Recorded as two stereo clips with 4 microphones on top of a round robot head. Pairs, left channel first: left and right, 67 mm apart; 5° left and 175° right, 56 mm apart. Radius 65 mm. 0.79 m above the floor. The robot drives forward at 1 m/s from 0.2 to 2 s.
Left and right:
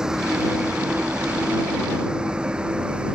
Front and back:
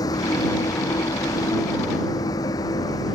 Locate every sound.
0.0 s a vehicle: 10° right; by 3.1 s 15° right